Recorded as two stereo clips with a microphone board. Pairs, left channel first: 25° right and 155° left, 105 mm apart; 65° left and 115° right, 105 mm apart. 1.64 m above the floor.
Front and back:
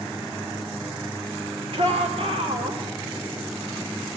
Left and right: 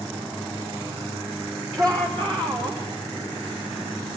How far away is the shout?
About 5 m.